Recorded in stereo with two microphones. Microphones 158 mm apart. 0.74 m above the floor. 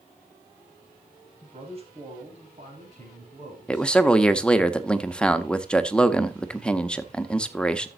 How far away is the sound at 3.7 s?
About 0.8 m.